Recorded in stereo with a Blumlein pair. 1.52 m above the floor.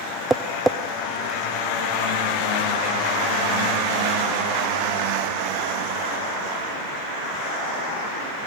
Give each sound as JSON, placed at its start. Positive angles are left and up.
{"t": 0.3, "sound": "tapping", "azimuth_deg": -5, "distance_m": 0.6}